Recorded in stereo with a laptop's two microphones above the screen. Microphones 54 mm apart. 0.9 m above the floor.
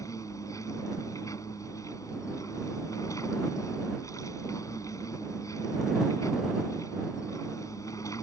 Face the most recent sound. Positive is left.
turn(degrees=80)